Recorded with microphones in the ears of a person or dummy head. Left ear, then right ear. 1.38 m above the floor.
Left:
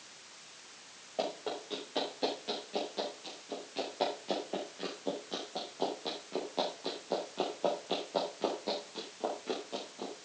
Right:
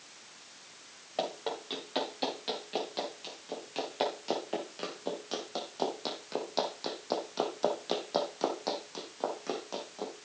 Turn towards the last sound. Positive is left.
turn(degrees=-40)  # may be behind; listen again after turning